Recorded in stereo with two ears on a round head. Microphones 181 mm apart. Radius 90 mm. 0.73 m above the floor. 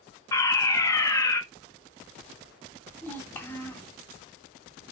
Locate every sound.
0.3 s a fire alarm: 15° left (ahead or behind), 1.7 m
3.0 s a child speaking: 10° left (ahead or behind), 3 m